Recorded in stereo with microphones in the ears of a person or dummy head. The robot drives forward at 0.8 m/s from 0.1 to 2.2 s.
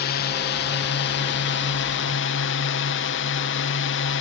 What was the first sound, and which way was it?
A drone, 55° left (ahead or behind).